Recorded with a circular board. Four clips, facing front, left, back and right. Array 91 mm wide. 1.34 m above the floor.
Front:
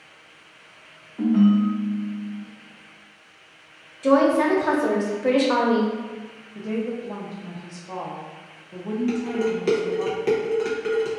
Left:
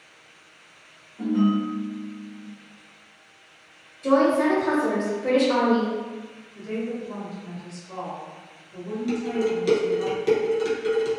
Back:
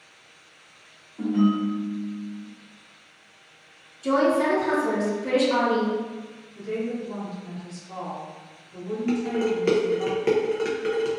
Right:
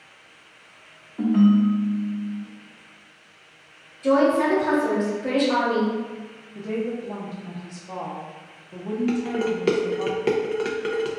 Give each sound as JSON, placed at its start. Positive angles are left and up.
{"t": 1.2, "sound": "a ringtone", "azimuth_deg": -65, "distance_m": 0.6}
{"t": 4.0, "sound": "a woman speaking", "azimuth_deg": 5, "distance_m": 0.9}
{"t": 6.5, "sound": "a woman speaking", "azimuth_deg": -45, "distance_m": 0.7}
{"t": 9.1, "sound": "dishes clattering", "azimuth_deg": -105, "distance_m": 0.5}